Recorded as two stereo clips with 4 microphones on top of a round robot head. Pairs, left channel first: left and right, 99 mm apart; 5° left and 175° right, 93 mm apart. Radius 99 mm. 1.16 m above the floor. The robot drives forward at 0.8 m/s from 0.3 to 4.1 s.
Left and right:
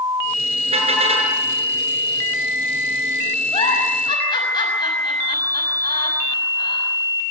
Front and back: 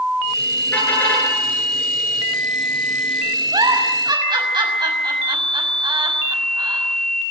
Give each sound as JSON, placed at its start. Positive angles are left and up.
{"t": 0.7, "sound": "a car horn", "azimuth_deg": -70, "distance_m": 9.5}
{"t": 3.5, "sound": "a giggle", "azimuth_deg": 140, "distance_m": 6.0}